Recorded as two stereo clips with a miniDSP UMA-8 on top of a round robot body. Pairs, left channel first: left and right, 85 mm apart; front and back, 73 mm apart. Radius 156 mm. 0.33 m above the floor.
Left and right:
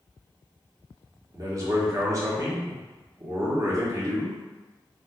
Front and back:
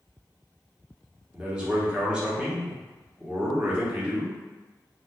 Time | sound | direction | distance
1.3 | a man speaking | 110° right | 1.1 m